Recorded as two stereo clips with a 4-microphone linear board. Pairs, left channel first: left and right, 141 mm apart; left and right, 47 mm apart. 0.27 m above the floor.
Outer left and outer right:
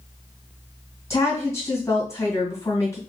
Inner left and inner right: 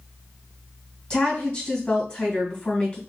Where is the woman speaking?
20° left (ahead or behind), 2 m.